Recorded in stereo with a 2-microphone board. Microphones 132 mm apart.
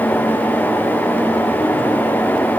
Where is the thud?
No thud in this recording.